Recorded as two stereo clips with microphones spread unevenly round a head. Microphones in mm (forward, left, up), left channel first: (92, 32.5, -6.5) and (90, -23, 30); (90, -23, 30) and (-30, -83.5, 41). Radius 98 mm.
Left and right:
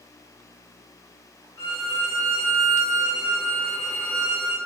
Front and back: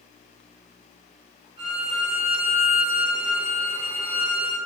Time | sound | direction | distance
1.6 | a violin | 140° left | 2.5 m